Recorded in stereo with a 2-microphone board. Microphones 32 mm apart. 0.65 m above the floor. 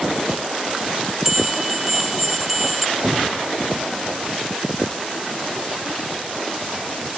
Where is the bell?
10° right (ahead or behind).